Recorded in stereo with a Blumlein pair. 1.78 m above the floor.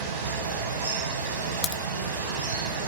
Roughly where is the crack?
Ahead left.